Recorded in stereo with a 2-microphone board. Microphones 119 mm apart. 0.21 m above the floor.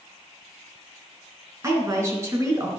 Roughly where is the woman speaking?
Right.